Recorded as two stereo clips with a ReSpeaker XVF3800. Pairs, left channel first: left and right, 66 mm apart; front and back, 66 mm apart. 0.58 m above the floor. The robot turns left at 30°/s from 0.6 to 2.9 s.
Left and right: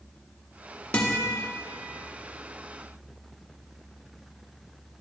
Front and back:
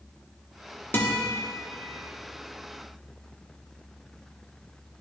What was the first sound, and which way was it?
A guitar, 35° left.